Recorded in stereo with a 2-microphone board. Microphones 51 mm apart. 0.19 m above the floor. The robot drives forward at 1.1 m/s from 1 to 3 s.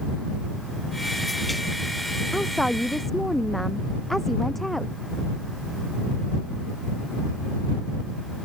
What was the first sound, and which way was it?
A woman speaking, 5° left (ahead or behind).